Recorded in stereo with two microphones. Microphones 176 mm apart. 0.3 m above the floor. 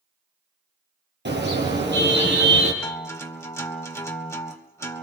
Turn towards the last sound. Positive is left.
turn(degrees=15)  # may be behind; listen again after turning